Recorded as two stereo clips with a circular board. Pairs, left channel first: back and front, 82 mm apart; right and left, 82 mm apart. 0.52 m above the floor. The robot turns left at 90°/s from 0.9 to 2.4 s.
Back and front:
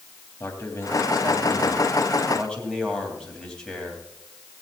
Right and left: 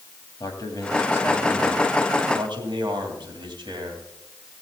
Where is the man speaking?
125° right, 3 m; by 4.0 s 100° left, 3 m.